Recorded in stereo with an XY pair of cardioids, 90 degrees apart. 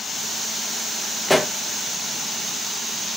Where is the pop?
10° left, 1.5 m.